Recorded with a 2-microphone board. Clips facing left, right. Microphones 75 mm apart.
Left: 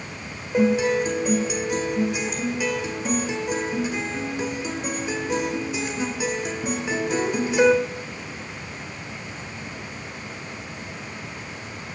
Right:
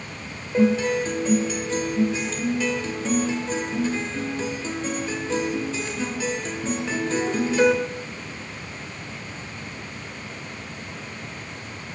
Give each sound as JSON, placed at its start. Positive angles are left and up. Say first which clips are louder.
{"t": 0.5, "sound": "a guitar", "louder": "even", "side_deg": 15, "distance_m": 1.6}